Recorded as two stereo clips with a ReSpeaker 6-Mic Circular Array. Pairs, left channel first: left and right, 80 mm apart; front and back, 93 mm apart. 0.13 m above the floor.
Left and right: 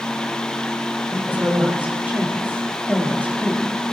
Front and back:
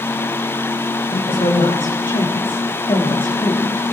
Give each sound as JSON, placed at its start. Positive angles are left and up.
{"t": 1.1, "sound": "a woman speaking", "azimuth_deg": -25, "distance_m": 8.5}